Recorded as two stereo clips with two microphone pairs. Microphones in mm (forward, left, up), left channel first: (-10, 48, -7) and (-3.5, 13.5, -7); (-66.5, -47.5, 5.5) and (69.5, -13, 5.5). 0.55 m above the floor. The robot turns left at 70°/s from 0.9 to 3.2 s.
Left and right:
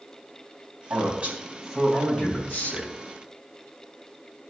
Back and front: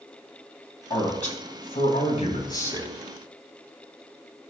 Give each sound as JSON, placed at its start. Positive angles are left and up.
{"t": 0.9, "sound": "a man speaking", "azimuth_deg": -115, "distance_m": 3.0}